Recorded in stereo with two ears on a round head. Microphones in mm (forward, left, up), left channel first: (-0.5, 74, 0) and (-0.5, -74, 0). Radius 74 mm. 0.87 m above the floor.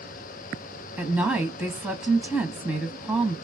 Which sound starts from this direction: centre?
A woman speaking, at 1.0 s.